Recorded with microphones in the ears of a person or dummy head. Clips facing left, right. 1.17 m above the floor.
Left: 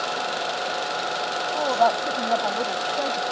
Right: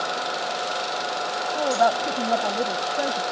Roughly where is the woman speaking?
Centre.